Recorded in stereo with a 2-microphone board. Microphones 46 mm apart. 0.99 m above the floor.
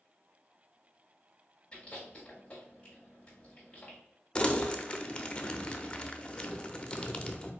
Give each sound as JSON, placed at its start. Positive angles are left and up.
{"t": 1.7, "sound": "chewing", "side_deg": 25, "distance_m": 2.0}
{"t": 4.3, "sound": "crumpling", "side_deg": 20, "distance_m": 0.5}